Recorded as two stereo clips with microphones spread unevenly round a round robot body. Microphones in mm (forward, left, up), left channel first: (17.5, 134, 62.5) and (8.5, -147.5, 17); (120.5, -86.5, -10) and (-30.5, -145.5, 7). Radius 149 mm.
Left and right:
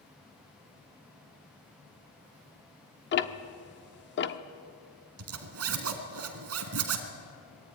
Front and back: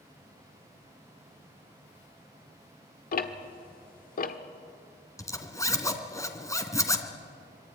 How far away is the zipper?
About 2.5 m.